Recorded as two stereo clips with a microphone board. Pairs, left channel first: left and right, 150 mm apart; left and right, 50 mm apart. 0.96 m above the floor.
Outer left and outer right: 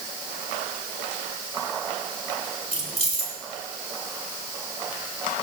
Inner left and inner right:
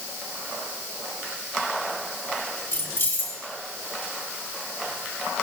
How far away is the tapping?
I don't hear tapping.